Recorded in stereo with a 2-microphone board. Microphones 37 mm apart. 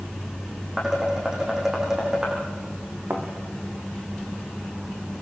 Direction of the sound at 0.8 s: 10° right (ahead or behind).